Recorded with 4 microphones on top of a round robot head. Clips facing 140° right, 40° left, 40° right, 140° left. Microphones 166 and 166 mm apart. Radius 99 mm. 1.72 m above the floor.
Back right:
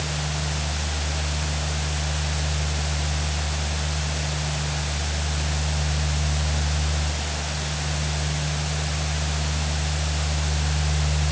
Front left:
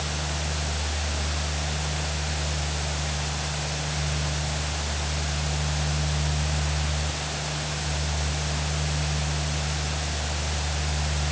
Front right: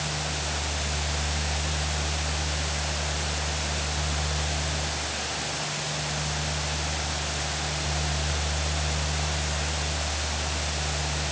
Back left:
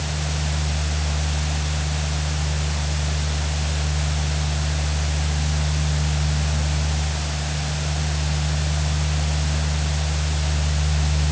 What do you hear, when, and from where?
Only background noise.